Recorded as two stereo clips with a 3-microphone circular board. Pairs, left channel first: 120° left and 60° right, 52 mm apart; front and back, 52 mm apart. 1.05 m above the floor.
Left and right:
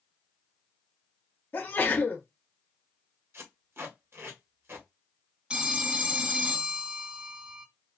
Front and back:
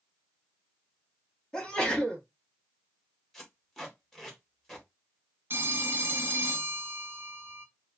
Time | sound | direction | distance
1.5 | a sneeze | 80° left | 1.4 m
3.3 | tape being pulled | 85° right | 1.5 m
5.5 | a phone ringing | 130° right | 0.6 m